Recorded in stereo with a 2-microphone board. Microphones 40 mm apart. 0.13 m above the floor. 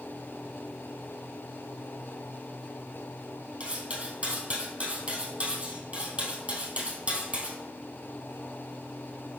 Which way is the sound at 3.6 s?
30° right (ahead or behind).